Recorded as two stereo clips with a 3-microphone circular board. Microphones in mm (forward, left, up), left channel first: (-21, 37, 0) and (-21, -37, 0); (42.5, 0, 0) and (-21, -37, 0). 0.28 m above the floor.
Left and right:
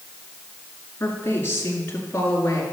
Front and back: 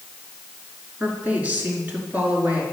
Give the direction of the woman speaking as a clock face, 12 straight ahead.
7 o'clock.